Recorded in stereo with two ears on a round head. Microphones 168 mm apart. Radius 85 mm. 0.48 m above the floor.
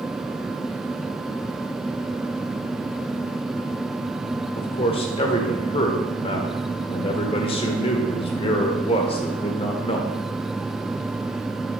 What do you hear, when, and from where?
4.6 s a man speaking: 30° left (ahead or behind), 1.1 m